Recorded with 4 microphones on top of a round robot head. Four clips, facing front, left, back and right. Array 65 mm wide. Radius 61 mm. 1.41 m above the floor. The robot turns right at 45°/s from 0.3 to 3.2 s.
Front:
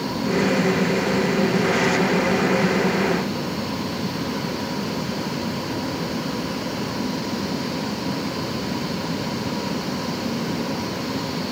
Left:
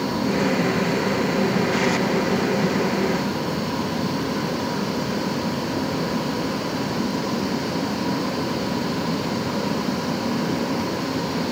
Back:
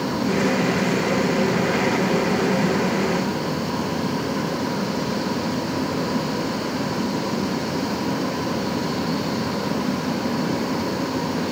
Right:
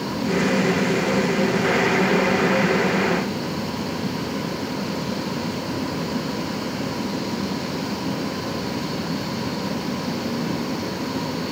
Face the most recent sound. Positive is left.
No sound to turn to.